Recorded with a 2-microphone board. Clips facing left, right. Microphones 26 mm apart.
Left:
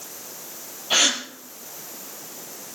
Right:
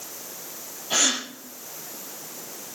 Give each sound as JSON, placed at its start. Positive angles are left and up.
{"t": 0.9, "sound": "a gasp", "side_deg": 30, "distance_m": 3.5}